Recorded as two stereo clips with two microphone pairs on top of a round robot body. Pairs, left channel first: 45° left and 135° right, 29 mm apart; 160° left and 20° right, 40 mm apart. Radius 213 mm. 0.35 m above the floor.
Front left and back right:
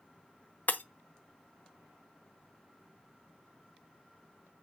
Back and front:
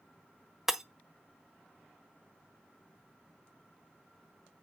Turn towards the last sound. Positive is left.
turn(degrees=60)